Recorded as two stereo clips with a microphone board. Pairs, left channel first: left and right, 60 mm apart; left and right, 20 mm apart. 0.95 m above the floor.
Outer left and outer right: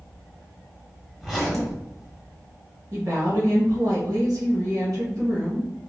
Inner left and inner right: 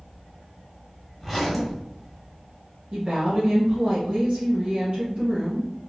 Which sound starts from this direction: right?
A woman speaking, at 2.9 s.